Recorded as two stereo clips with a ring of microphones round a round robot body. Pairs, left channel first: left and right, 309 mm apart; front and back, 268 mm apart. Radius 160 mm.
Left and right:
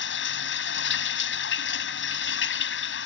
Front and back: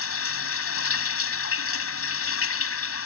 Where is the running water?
35° left.